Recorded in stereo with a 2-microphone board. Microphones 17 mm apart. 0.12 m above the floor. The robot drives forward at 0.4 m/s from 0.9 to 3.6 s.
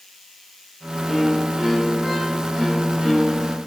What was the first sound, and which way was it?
A violin, 25° right (ahead or behind).